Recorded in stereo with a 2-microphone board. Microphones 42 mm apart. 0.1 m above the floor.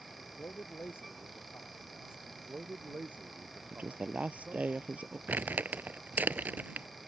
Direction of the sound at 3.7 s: 40° right (ahead or behind).